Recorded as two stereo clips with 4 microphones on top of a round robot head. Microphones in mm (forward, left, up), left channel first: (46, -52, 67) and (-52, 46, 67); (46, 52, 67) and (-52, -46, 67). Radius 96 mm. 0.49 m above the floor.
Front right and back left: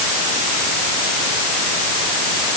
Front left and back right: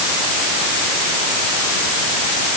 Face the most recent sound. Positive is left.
No sound to turn to.